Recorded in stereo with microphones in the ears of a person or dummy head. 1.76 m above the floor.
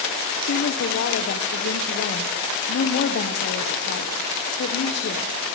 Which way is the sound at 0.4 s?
50° left (ahead or behind).